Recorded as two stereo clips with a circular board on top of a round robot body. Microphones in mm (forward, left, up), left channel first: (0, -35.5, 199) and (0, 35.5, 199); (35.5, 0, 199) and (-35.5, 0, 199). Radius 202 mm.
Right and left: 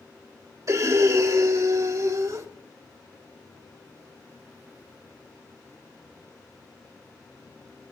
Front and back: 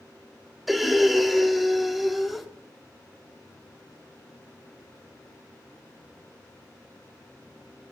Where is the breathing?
90° left, 1.7 m.